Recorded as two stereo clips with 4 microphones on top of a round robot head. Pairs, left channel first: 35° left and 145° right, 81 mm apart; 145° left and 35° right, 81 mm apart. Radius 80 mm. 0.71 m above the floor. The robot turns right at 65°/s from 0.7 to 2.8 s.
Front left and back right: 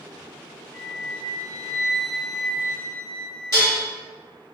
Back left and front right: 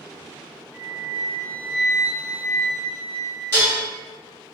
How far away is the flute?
About 1.1 m.